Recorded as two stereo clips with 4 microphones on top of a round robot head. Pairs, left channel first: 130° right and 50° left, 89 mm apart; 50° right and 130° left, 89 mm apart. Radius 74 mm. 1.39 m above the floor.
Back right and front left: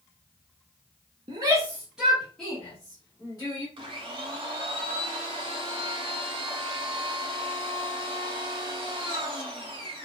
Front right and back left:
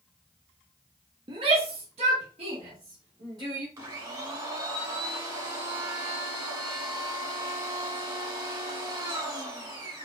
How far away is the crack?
I don't hear a crack.